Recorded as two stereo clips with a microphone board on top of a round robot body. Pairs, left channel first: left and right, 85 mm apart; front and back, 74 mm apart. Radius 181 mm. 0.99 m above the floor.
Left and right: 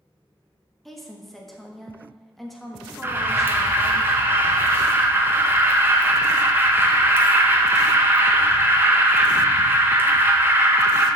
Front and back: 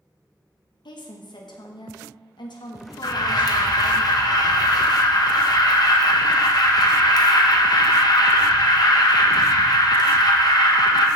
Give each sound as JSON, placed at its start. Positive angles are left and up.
{"t": 0.8, "sound": "a woman speaking", "azimuth_deg": 5, "distance_m": 1.8}
{"t": 3.0, "sound": "an alarm", "azimuth_deg": -25, "distance_m": 1.4}